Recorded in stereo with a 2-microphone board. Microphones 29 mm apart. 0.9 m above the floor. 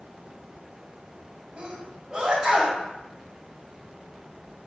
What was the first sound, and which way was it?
A sneeze, 25° right (ahead or behind).